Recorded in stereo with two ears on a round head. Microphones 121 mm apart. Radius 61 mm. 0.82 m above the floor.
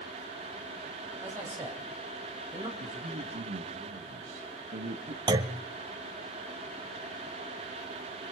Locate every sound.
1.2 s a man speaking: 20° right (ahead or behind), 5 m; by 2.7 s 25° right (ahead or behind), 4 m
2.8 s a man speaking: 65° right (ahead or behind), 1.6 m
5.3 s a clunk: 30° right (ahead or behind), 0.8 m